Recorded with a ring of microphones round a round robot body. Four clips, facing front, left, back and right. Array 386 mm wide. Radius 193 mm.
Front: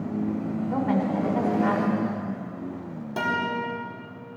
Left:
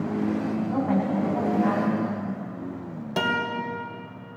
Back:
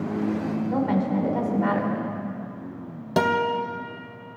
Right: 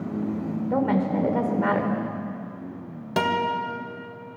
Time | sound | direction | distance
0.7 | a woman speaking | 85° right | 2.5 m
3.2 | a guitar | 165° right | 1.5 m